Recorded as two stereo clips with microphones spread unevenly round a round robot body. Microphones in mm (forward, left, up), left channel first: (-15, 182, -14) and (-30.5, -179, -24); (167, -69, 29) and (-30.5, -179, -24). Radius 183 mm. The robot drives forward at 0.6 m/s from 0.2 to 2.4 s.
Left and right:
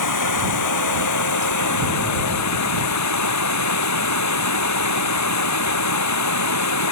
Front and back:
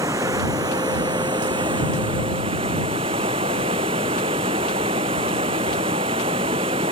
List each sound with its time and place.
0.0 s running water: 125° left; by 6.9 s 135° left